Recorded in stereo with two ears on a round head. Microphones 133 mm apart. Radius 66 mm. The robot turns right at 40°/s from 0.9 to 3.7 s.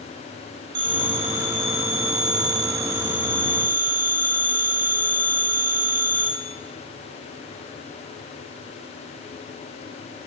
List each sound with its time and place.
0.8 s a phone ringing: 145° right, 1.4 m; by 6.3 s 35° right, 1.4 m